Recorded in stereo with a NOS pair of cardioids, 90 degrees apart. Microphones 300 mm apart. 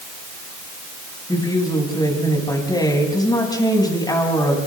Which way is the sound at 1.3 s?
15° left.